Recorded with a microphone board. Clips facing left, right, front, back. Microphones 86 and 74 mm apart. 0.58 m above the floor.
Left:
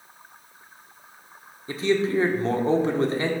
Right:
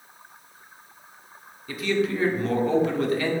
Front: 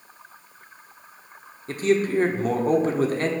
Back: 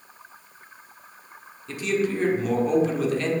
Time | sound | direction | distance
1.7 | a man speaking | 35° left | 1.2 m